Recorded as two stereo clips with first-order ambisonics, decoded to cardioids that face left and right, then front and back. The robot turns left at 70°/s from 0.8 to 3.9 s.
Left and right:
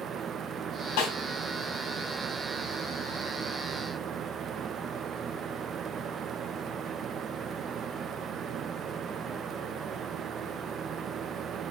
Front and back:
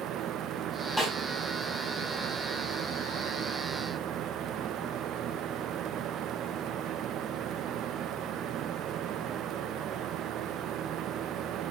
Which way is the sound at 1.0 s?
100° left.